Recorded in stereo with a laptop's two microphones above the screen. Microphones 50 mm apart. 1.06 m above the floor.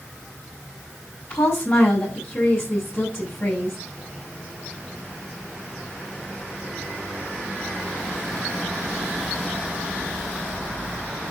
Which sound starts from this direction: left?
A woman speaking, at 1.3 s.